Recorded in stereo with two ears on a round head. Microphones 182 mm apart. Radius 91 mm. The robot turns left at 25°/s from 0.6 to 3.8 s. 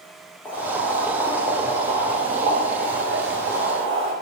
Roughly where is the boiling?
Ahead.